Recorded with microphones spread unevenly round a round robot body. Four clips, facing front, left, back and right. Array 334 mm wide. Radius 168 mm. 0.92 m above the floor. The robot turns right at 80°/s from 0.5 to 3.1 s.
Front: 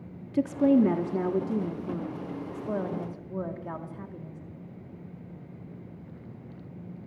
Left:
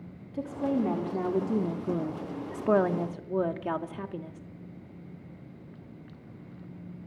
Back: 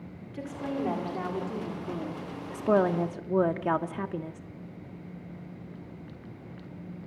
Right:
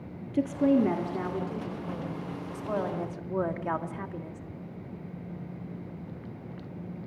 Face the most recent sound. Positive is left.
turn(degrees=175)